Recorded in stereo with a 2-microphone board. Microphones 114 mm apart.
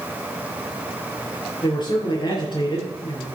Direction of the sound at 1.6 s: 45° left (ahead or behind).